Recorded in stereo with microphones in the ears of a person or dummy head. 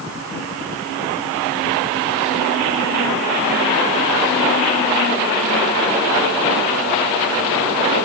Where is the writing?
No writing in this recording.